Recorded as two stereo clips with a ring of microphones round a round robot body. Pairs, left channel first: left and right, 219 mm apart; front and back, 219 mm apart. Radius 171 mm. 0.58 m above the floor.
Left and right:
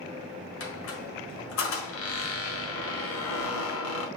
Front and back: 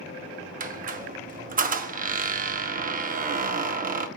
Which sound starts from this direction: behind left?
A squeak, at 0.6 s.